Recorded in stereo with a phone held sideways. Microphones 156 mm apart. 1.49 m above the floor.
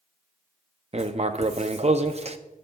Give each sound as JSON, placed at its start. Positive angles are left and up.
{"t": 0.9, "sound": "writing", "side_deg": -45, "distance_m": 0.5}